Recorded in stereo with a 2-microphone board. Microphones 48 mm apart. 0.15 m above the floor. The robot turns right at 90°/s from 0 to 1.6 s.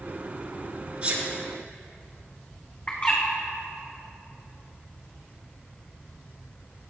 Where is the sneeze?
25° right (ahead or behind), 2.5 m; by 1.3 s 45° right (ahead or behind), 2.5 m.